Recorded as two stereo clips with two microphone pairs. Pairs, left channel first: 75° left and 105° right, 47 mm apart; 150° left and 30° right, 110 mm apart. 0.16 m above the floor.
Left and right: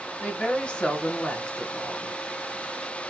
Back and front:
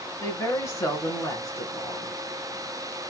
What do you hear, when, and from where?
0.2 s a woman speaking: 115° left, 1.5 m